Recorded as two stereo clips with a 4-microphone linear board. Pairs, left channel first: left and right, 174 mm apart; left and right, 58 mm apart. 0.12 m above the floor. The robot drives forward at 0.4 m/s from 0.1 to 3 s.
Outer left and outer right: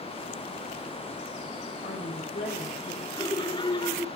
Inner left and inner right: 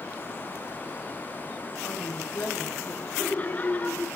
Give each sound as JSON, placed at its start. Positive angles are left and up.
{"t": 1.8, "sound": "a woman speaking", "side_deg": 55, "distance_m": 5.5}
{"t": 3.1, "sound": "laughter", "side_deg": 25, "distance_m": 1.5}